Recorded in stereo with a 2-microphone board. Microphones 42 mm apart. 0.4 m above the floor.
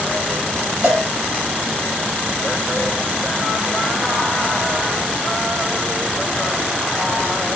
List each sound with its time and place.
0.8 s a cowbell: 70° right (ahead or behind), 1.1 m